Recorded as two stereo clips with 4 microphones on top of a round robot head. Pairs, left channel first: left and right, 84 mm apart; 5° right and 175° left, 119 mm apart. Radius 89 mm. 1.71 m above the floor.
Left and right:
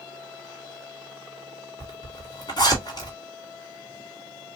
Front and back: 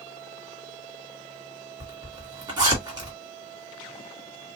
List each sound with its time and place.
1.8 s a zipper: 120° left, 2.0 m